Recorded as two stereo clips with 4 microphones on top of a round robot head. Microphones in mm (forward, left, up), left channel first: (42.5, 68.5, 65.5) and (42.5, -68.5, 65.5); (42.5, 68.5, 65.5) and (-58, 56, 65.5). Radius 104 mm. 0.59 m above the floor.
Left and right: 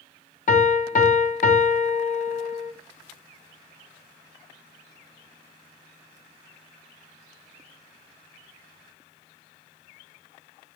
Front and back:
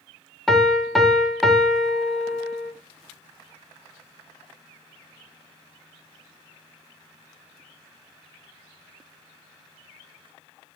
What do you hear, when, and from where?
0.5 s a piano: 95° left, 0.8 m